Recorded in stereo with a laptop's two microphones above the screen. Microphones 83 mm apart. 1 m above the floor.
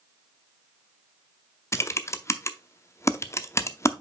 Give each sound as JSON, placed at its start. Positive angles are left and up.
{"t": 1.7, "sound": "typing on a keyboard", "side_deg": 35, "distance_m": 0.6}